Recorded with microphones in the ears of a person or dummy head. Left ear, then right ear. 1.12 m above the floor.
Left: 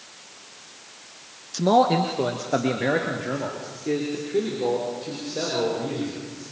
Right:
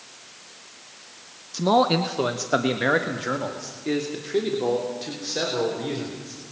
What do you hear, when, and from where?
1.5 s a man speaking: 5° left (ahead or behind), 0.5 m; by 6.4 s 35° right (ahead or behind), 4 m